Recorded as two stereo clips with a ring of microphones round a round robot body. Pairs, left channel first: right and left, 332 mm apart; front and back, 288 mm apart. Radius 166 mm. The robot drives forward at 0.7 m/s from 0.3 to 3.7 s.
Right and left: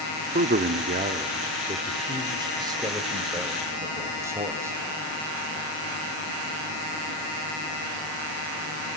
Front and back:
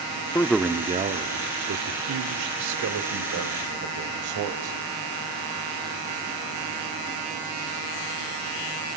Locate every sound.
0.3 s a man speaking: 65° left, 0.8 m; by 4.8 s 170° left, 2.5 m